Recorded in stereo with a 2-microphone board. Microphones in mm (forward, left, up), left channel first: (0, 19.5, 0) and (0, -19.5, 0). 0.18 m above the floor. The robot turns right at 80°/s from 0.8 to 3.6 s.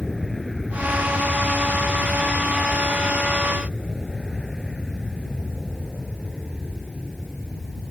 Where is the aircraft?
5° left (ahead or behind); by 7.9 s centre (ahead or behind).